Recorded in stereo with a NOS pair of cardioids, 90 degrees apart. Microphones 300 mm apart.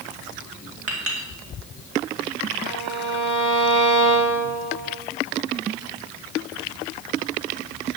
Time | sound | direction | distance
0.9 | a clink | 50° right | 3 m
2.6 | a violin | 65° right | 3.5 m